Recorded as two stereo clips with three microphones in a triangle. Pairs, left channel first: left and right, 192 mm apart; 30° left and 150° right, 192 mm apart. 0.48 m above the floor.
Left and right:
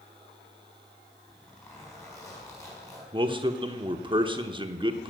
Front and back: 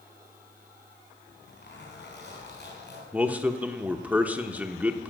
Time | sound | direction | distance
1.3 | a zipper | 15° left | 4 m
3.1 | a man speaking | 75° right | 0.8 m